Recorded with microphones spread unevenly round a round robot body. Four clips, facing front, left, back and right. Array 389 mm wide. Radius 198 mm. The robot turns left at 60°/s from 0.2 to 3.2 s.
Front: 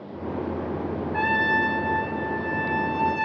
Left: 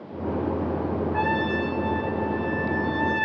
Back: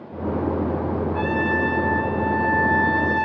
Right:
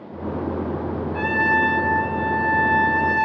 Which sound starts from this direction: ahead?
A trumpet, at 1.1 s.